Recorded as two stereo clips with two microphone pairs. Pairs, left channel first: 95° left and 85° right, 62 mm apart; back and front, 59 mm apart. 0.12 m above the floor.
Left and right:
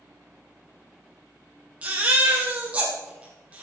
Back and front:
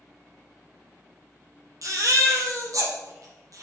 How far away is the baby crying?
About 3 m.